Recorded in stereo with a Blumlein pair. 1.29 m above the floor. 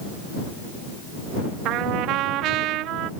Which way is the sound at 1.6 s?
40° right.